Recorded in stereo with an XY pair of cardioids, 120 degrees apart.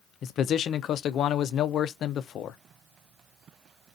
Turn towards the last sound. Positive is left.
turn(degrees=60)